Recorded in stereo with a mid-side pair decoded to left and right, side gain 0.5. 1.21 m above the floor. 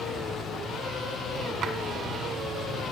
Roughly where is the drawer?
Ahead right.